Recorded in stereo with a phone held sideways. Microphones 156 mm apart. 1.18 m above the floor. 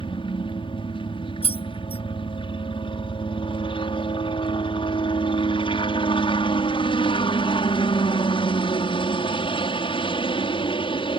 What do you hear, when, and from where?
0.0 s a helicopter: 35° left (ahead or behind)
1.4 s keys jangling: 40° left (ahead or behind)